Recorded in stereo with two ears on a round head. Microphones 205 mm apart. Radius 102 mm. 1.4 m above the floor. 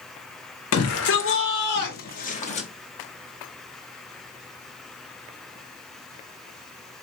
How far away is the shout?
About 1.5 m.